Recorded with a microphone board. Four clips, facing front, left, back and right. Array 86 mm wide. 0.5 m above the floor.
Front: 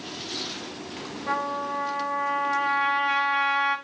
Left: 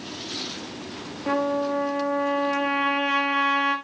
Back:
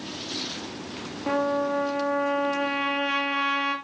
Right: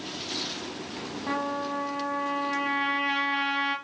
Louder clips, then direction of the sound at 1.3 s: Left 7 dB, back 4 dB; 130° left.